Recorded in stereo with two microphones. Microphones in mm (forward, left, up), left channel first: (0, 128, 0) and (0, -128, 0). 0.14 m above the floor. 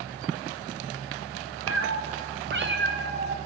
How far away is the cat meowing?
About 3 m.